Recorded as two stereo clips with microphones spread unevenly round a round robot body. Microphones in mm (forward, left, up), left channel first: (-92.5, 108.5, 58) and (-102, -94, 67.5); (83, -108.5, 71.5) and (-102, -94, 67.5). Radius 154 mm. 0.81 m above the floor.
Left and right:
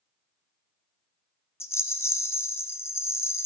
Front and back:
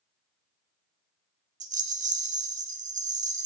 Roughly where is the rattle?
Behind left.